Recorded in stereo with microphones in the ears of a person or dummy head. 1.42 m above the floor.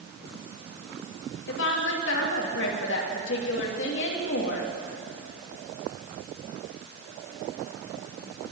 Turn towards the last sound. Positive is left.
turn(degrees=75)  # may be behind; listen again after turning